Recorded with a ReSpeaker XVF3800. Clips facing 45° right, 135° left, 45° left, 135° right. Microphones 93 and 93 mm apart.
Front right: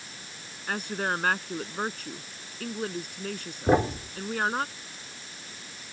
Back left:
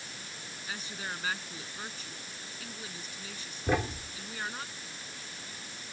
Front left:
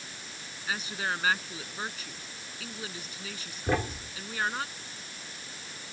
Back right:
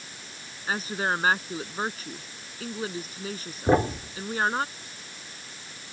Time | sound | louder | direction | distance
0.7 | a woman speaking | front right 11 dB, back right 5 dB | 80° right | ?
3.7 | a thud | front right 8 dB, back right 8 dB | 90° right | ?